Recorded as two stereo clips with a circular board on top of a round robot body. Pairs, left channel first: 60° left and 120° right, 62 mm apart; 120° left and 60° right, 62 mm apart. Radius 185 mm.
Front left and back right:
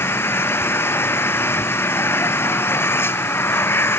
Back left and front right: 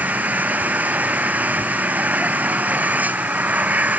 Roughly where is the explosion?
I don't hear an explosion.